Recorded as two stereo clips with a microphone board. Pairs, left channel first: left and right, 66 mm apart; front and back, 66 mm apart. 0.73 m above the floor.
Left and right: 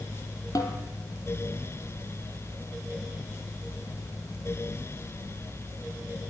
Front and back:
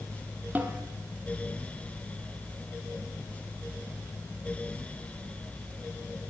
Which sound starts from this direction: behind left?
A snare drum, at 0.6 s.